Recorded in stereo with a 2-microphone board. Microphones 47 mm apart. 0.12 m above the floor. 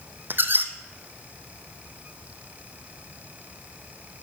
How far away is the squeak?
About 1.0 m.